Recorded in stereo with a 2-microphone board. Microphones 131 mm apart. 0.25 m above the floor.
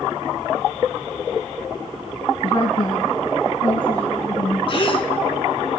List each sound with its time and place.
2.4 s a woman speaking: 40° left (ahead or behind), 1.9 m; by 4.6 s 35° left (ahead or behind), 5 m
4.7 s a gasp: 45° left (ahead or behind), 3 m